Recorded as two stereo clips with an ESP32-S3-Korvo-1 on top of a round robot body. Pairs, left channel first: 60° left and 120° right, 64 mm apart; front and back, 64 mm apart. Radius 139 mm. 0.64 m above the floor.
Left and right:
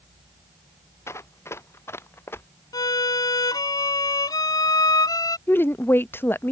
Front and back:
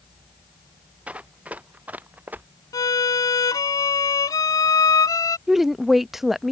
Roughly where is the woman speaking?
Left.